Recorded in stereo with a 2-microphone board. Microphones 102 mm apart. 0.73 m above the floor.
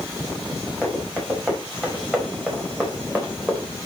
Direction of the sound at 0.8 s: 10° right (ahead or behind).